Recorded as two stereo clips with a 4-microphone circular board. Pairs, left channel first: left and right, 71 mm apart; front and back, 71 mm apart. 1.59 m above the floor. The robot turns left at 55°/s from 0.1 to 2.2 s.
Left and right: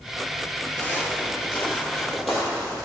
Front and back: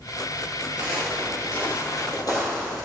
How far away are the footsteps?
About 1.6 m.